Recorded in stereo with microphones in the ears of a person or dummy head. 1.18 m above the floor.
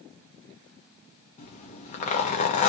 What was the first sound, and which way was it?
A zipper, 40° left (ahead or behind).